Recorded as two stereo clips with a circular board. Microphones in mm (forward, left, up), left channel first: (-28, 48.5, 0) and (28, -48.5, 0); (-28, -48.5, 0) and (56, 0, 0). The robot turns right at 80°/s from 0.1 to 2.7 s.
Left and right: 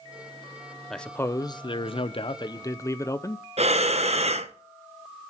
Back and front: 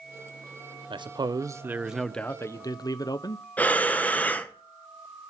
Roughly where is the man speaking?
Ahead left.